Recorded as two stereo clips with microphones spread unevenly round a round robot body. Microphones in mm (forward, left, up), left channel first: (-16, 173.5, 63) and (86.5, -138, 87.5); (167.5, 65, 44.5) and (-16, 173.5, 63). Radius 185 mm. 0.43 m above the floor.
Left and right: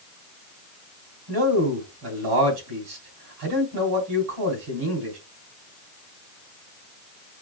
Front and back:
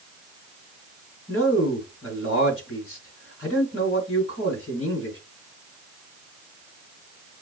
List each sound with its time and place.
1.3 s a man speaking: 80° right, 3 m